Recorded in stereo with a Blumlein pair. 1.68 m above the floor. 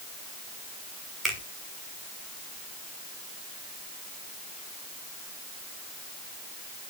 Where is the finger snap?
15° right, 6 m.